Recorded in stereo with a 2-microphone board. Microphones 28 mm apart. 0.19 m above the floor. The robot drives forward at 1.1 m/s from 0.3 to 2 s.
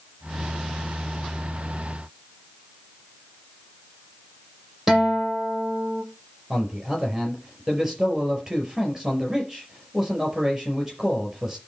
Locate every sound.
4.9 s a guitar: 10° right (ahead or behind), 6.5 m
6.5 s a man speaking: 15° right (ahead or behind), 4.5 m